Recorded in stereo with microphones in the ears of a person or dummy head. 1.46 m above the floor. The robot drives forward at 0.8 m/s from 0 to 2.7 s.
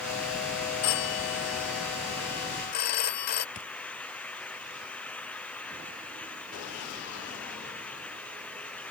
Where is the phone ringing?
70° left (ahead or behind); by 3.5 s 50° left (ahead or behind).